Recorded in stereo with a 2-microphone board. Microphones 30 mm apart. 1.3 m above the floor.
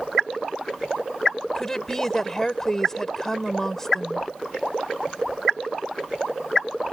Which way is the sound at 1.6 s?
15° left (ahead or behind).